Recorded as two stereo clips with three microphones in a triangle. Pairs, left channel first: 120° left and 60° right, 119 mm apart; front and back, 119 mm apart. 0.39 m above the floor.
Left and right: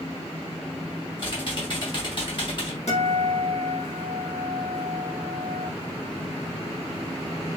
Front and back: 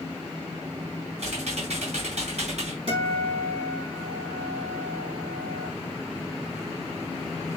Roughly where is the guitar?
Behind left.